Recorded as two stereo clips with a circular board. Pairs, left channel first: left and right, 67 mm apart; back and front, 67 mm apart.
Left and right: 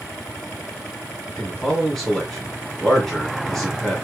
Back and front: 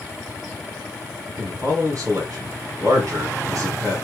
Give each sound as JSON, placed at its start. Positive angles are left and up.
{"t": 1.4, "sound": "a man speaking", "azimuth_deg": 10, "distance_m": 2.5}